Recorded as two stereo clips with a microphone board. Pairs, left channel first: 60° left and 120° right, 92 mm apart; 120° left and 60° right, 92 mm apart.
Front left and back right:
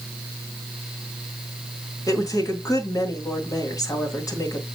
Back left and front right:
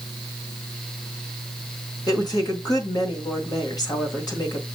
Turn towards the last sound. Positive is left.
turn(degrees=100)